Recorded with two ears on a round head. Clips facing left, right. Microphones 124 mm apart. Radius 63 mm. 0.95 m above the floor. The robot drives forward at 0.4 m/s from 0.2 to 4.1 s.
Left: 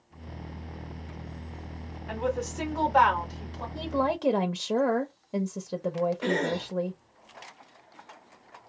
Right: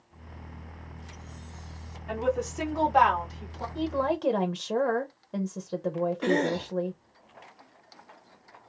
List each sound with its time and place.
2.1 s a woman speaking: centre (ahead or behind), 2 m
3.8 s a woman speaking: 5° left (ahead or behind), 0.7 m
6.2 s a cough: 5° left (ahead or behind), 2.5 m